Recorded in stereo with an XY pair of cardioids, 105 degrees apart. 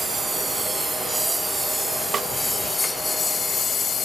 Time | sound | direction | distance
0.0 | a lawn mower | 30° right | ?
2.1 | a snare drum | 50° right | ?